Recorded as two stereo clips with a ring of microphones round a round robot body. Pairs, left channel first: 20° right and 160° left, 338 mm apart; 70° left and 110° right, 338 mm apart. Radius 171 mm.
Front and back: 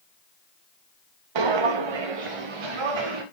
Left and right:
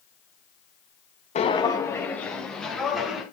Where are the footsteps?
140° left, 1.1 m; by 3.2 s 160° left, 4 m.